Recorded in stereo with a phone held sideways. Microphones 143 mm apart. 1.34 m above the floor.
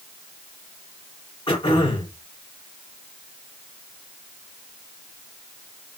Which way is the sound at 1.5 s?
35° left (ahead or behind).